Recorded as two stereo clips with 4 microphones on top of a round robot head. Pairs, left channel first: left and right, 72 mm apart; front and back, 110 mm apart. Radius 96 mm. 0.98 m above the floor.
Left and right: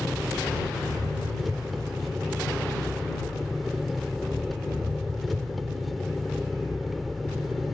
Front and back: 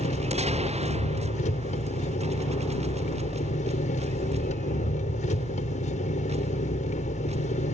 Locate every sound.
0.0 s an engine running: straight ahead